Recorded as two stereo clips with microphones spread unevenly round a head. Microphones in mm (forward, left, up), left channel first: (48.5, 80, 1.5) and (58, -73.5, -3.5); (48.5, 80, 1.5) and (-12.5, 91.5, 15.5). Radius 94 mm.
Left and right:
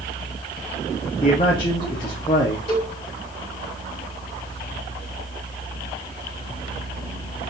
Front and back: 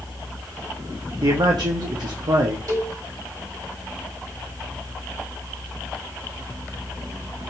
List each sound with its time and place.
0.0 s a fan: 160° left, 3 m
1.2 s a man speaking: 160° left, 0.8 m
2.7 s a cowbell: 155° left, 3 m